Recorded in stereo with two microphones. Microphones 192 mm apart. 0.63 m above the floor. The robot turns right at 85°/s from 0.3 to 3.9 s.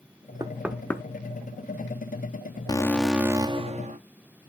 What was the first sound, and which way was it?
Knocking, 25° right (ahead or behind).